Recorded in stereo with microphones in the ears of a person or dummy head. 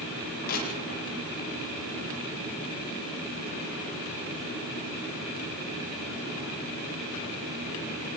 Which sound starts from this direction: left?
Crushing, at 0.5 s.